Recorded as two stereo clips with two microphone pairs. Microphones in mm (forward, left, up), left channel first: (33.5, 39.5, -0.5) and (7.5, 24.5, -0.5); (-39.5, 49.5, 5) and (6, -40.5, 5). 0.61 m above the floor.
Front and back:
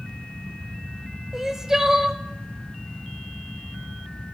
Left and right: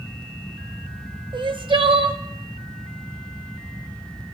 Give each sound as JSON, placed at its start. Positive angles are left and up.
{"t": 1.3, "sound": "crying", "azimuth_deg": -75, "distance_m": 0.5}